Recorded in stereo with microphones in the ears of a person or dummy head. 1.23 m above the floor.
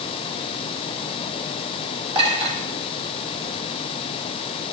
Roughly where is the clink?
Right.